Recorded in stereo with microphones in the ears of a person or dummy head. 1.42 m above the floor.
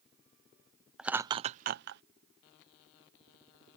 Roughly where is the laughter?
Centre.